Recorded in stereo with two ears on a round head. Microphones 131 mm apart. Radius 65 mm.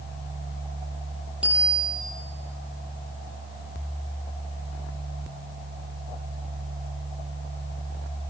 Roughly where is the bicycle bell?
Centre.